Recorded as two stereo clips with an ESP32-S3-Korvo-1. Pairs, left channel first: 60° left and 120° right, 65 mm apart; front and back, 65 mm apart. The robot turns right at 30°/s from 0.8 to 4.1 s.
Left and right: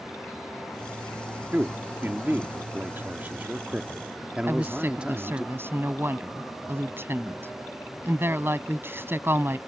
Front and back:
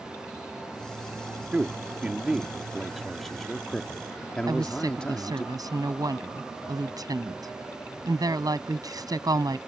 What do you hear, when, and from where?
1.5 s a man speaking: 140° right; by 5.5 s 60° right
4.5 s a woman speaking: 175° right